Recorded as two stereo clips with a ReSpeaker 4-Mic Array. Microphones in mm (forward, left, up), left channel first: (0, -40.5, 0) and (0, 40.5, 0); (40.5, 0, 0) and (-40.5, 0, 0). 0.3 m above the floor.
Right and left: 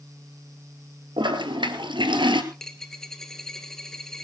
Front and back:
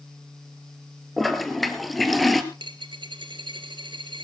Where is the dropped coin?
175° right, 1.4 m.